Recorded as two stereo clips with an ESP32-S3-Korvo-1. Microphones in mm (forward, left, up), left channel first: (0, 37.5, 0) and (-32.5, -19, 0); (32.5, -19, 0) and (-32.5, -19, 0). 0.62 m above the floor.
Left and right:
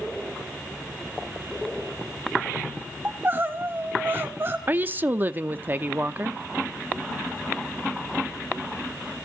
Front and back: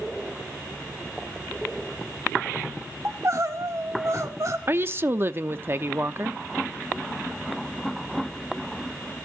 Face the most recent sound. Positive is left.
turn(degrees=-160)